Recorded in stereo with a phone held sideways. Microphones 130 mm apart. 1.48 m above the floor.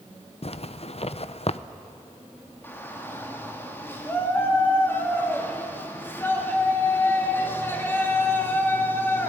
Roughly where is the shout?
Centre.